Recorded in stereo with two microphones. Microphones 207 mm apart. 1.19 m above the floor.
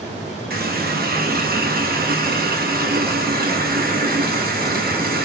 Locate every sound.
0.5 s a running tap: 45° right (ahead or behind), 0.7 m